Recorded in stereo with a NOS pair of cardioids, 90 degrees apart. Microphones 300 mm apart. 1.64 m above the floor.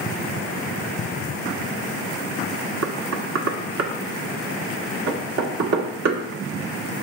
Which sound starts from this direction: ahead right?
Knocking, at 2.8 s.